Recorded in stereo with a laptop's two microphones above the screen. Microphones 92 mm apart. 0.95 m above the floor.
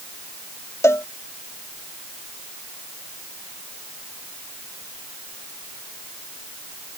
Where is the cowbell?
30° left (ahead or behind).